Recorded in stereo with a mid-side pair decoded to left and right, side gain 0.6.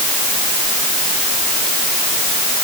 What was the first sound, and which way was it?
Only background noise.